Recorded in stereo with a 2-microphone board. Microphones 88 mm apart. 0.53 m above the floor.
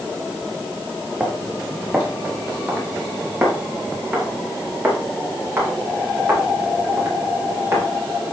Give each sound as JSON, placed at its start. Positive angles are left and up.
{"t": 1.2, "sound": "footsteps", "side_deg": -15, "distance_m": 4.0}